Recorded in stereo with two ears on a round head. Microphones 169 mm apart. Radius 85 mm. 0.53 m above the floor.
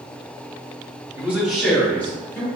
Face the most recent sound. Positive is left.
turn(degrees=15)  # may be behind; listen again after turning